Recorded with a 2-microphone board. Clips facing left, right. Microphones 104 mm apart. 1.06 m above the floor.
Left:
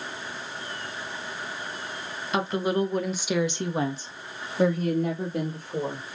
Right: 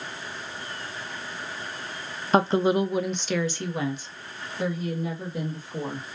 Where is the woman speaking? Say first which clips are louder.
Right 5 dB; 40° right (ahead or behind), 0.6 m; by 6.0 s 55° left (ahead or behind), 1.7 m.